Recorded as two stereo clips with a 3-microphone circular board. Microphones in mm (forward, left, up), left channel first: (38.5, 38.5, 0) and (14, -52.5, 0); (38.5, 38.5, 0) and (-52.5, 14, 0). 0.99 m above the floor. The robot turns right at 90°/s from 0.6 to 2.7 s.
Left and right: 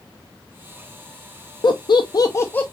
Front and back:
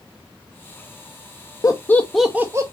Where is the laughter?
60° left, 0.6 m; by 2.6 s 145° left, 0.6 m.